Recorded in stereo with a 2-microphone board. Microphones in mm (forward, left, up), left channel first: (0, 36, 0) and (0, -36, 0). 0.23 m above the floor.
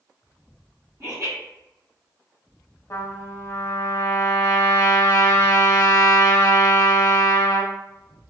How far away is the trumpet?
About 0.6 m.